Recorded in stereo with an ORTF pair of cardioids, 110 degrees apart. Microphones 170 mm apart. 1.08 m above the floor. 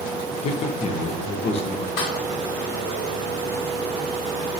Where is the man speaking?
40° left, 0.5 m.